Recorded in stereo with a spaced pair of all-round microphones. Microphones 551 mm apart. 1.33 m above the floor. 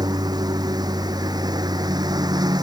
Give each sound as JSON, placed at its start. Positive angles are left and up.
{"t": 0.0, "sound": "a lawn mower", "side_deg": -5}